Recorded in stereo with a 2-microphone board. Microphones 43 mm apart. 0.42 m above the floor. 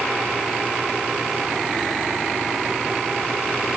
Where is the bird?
I don't hear a bird.